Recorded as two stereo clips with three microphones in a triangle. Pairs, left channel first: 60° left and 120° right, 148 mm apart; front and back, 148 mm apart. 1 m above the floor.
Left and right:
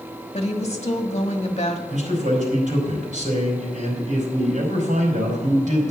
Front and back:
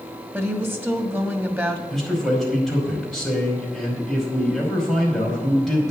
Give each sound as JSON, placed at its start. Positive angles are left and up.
{"t": 0.3, "sound": "a woman speaking", "azimuth_deg": 105, "distance_m": 1.5}
{"t": 1.9, "sound": "a man speaking", "azimuth_deg": -90, "distance_m": 5.0}